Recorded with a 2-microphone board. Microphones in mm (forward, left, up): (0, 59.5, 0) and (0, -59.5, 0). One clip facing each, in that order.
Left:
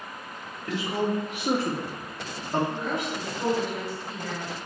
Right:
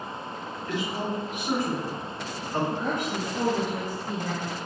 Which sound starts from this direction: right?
A woman speaking, at 2.7 s.